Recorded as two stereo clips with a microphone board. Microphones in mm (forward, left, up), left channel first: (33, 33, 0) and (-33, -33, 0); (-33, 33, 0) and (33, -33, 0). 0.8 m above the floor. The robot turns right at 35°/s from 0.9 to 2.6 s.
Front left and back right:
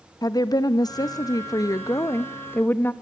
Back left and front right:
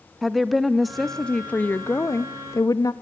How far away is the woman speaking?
About 0.7 m.